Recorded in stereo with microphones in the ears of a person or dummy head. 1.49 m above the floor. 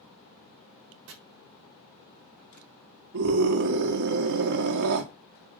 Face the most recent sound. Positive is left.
turn(degrees=-60)  # may be behind; listen again after turning